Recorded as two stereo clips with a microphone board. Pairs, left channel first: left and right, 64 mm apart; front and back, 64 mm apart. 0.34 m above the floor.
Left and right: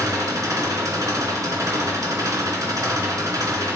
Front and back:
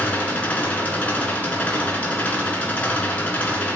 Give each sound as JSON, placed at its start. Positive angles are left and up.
{"t": 0.0, "sound": "an engine running", "azimuth_deg": -65, "distance_m": 2.0}